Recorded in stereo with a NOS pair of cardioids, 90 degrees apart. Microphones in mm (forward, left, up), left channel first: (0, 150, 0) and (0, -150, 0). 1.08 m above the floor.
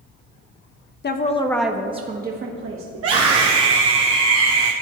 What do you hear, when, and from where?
1.0 s a woman speaking: 35° left, 1.1 m; by 2.9 s 45° right, 1.9 m
3.0 s a scream: 55° right, 1.6 m